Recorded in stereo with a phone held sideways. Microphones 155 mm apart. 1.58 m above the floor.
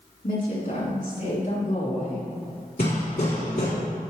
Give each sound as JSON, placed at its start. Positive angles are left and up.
{"t": 0.2, "sound": "a woman speaking", "side_deg": 65, "distance_m": 3.5}
{"t": 2.8, "sound": "hammering", "side_deg": 75, "distance_m": 3.5}